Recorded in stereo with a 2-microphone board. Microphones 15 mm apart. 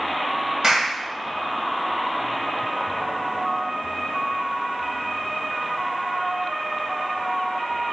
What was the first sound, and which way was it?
A clap, 45° right (ahead or behind).